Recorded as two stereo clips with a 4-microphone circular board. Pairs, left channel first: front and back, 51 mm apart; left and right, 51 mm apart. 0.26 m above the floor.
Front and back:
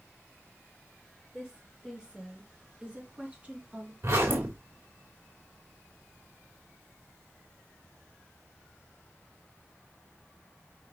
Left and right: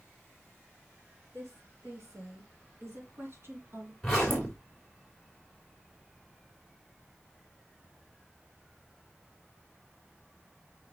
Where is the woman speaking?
105° right, 5 m; by 3.9 s 130° right, 2.5 m.